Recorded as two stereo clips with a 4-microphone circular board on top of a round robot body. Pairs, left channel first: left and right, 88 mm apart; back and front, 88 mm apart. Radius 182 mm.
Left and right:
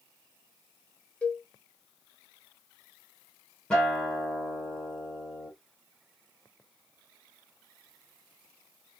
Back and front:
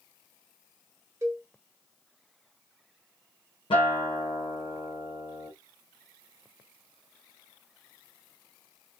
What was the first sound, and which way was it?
A cowbell, 25° left.